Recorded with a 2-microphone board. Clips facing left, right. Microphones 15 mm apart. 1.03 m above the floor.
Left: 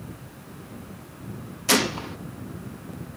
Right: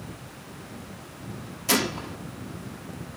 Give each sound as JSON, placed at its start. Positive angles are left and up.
{"t": 1.7, "sound": "a gunshot", "side_deg": 15, "distance_m": 0.7}